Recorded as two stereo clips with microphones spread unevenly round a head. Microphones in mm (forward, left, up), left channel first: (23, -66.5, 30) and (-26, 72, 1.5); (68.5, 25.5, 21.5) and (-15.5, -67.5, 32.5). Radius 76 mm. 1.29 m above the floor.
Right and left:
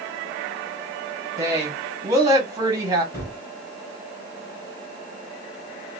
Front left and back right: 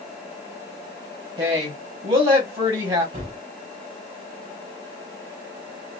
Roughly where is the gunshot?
Behind right.